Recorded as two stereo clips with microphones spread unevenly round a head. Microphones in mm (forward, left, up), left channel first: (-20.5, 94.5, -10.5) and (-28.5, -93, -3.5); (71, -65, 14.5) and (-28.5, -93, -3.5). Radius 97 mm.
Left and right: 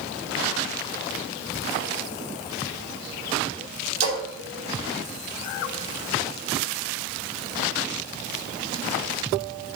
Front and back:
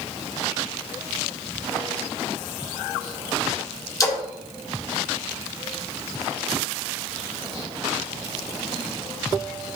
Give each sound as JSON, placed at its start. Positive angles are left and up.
{"t": 4.0, "sound": "a splash", "azimuth_deg": -40, "distance_m": 3.5}